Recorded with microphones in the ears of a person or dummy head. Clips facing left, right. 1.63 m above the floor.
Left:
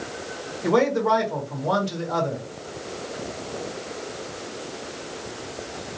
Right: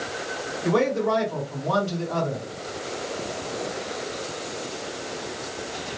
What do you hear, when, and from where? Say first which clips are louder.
0.6 s a man speaking: left 2 dB; 70° left (ahead or behind), 1.7 m